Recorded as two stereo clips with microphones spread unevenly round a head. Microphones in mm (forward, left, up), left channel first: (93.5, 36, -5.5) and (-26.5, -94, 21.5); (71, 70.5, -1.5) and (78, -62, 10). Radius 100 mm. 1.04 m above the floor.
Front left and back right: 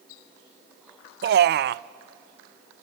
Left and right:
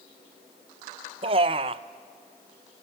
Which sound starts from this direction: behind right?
A man speaking, at 1.2 s.